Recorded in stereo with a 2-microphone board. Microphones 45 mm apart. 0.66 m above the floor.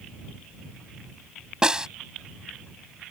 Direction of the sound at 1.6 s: 15° right (ahead or behind).